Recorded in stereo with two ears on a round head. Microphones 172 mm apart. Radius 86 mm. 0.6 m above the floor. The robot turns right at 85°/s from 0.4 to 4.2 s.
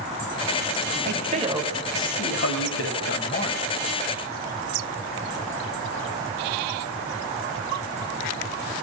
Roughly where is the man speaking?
Ahead right.